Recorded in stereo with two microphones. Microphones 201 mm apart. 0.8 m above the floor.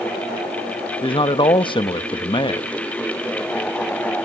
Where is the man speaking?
25° left (ahead or behind), 1.0 m.